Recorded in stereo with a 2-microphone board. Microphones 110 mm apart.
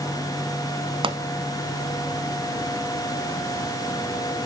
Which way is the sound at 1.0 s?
50° right (ahead or behind).